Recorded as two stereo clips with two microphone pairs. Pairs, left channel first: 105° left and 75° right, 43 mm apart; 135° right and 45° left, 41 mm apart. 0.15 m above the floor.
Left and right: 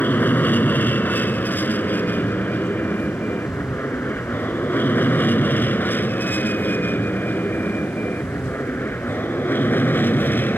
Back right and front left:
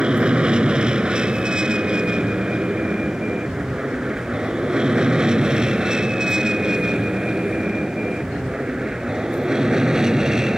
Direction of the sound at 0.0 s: 100° left.